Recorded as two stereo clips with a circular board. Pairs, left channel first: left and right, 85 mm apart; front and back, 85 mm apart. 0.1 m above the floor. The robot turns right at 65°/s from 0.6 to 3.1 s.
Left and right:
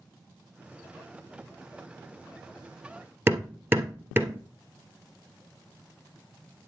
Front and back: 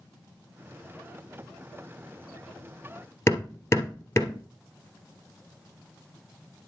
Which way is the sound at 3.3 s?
40° right.